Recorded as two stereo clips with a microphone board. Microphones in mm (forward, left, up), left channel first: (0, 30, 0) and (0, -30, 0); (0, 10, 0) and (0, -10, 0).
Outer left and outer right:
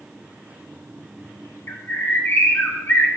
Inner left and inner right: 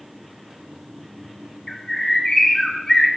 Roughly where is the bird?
Left.